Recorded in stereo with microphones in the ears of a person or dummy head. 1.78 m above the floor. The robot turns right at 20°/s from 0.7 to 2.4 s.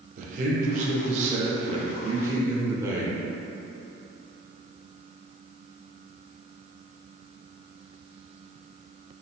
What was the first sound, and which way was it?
A man speaking, 45° right.